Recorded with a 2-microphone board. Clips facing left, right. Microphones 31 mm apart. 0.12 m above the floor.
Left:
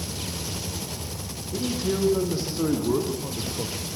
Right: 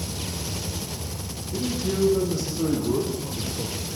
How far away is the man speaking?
About 6.5 m.